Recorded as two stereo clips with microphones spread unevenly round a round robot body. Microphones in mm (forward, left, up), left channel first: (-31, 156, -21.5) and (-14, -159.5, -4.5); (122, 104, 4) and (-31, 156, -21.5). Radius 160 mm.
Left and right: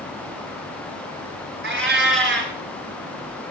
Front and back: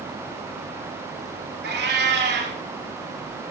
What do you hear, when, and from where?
1.6 s a cat meowing: 140° right, 2 m